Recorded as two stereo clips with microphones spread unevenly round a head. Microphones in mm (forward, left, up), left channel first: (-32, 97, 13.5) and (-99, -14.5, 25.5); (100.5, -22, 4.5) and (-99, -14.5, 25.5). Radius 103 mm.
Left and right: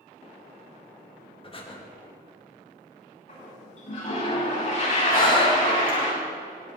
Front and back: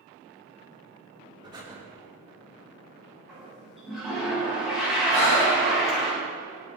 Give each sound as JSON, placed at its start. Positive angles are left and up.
{"t": 1.4, "sound": "breathing", "azimuth_deg": 105, "distance_m": 2.5}
{"t": 3.3, "sound": "a toilet flushing", "azimuth_deg": 90, "distance_m": 7.0}
{"t": 5.1, "sound": "breathing", "azimuth_deg": 60, "distance_m": 5.5}